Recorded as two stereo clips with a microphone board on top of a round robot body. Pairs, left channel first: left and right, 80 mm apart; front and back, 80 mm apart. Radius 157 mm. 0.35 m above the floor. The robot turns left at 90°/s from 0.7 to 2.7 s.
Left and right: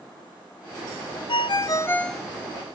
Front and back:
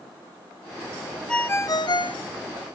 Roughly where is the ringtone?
Left.